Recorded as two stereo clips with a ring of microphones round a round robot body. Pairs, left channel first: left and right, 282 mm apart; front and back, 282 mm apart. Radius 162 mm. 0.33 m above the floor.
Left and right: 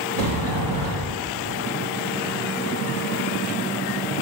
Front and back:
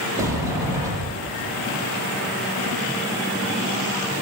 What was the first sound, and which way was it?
A sliding door, 100° right.